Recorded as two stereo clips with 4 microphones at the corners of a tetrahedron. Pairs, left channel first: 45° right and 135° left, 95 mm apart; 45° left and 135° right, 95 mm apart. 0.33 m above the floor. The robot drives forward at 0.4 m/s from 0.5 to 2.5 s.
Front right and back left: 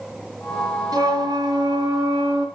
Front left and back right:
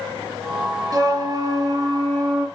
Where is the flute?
Straight behind, 2.5 m.